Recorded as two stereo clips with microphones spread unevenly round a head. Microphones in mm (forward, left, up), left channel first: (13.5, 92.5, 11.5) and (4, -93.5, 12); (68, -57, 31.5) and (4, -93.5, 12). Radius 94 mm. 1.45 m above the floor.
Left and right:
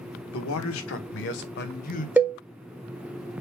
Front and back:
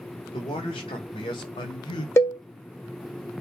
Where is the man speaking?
80° left, 1.5 m; by 2.1 s 35° left, 1.2 m.